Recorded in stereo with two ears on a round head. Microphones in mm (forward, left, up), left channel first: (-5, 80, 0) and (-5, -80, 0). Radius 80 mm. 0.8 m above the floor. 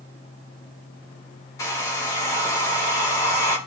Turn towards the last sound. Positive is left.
turn(degrees=20)  # may be behind; listen again after turning